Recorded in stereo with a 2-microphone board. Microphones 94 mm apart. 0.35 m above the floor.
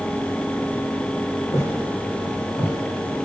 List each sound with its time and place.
1.5 s footsteps: 30° left (ahead or behind), 4 m; by 2.7 s 15° left (ahead or behind), 3 m